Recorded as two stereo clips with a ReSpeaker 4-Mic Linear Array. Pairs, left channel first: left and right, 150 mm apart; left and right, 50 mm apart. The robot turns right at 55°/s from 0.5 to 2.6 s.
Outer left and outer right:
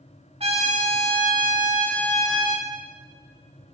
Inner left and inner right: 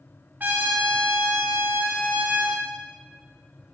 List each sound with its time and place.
0.4 s a trumpet: 140° right, 3.5 m; by 2.6 s 25° right, 3.5 m